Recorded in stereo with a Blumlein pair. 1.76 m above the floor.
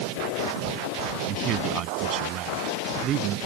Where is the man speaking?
40° right; by 3.4 s 30° right.